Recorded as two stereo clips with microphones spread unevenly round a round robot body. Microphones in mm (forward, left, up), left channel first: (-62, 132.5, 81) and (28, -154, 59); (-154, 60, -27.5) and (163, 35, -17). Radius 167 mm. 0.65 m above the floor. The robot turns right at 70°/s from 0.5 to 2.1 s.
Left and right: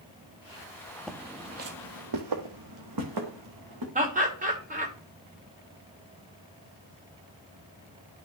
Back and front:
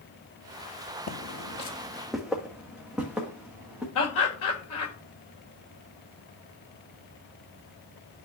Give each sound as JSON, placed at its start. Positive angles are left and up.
{"t": 1.1, "sound": "footsteps", "azimuth_deg": -175, "distance_m": 0.6}
{"t": 4.0, "sound": "laughter", "azimuth_deg": -135, "distance_m": 2.0}